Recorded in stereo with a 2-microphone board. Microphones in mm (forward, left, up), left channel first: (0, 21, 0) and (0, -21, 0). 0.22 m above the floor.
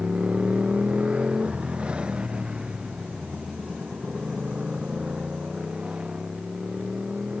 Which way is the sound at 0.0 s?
25° right (ahead or behind).